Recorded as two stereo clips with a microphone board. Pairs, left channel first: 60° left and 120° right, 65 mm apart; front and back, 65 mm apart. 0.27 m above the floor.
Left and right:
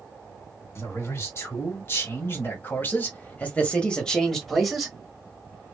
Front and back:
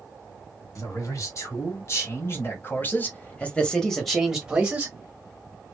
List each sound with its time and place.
0.8 s a man speaking: 20° left, 2.5 m; by 5.0 s 165° left, 1.3 m